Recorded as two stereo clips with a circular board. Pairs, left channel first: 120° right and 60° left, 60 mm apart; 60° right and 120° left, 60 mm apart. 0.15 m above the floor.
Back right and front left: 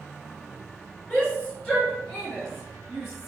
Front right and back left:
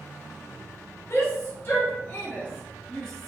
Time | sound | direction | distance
1.1 | a shout | 55° right | 1.9 m